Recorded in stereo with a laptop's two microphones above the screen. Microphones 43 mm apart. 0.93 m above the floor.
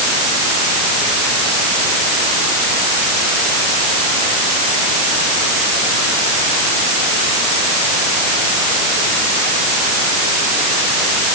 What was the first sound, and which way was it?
Only background noise.